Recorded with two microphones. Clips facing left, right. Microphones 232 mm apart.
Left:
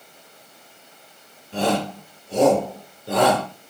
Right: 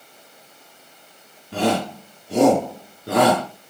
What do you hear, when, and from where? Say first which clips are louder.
1.5 s a shout: right 1 dB; 70° right (ahead or behind), 3.5 m